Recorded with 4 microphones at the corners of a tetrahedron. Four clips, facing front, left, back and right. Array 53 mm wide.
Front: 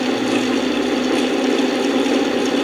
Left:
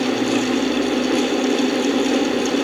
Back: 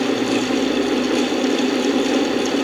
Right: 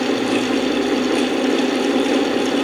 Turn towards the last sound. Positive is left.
No sound to turn to.